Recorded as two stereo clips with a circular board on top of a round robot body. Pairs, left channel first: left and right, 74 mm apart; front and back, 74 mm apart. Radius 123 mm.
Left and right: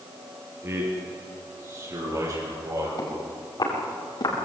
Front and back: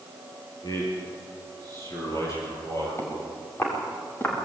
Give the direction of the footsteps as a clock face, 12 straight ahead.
10 o'clock.